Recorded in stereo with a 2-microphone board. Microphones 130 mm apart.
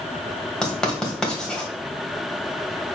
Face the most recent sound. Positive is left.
turn(degrees=5)  # may be behind; listen again after turning